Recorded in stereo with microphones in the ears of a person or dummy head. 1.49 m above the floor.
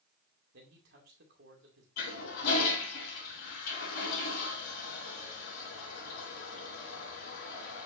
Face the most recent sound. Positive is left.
turn(degrees=55)  # may be behind; listen again after turning